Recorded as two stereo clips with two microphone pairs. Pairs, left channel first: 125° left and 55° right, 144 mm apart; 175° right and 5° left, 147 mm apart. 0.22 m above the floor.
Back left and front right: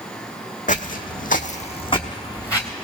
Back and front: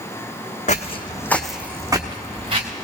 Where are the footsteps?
150° left, 0.7 m; by 2.7 s 55° left, 1.3 m.